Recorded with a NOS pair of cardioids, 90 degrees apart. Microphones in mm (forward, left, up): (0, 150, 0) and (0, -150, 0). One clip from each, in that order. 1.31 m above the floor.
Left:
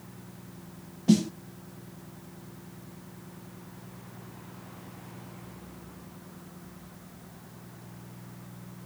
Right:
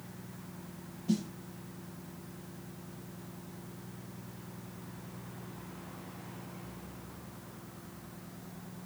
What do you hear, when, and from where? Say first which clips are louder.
1.1 s a snare drum: left 10 dB; 65° left